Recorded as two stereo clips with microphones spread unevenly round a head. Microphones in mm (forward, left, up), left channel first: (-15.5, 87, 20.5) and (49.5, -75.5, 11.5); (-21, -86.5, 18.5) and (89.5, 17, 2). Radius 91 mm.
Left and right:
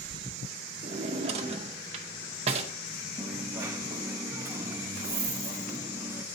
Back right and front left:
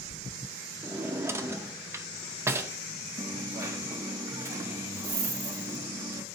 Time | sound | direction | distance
0.8 | a drawer | 30° right | 0.5 m
3.2 | a dropped coin | 10° right | 0.6 m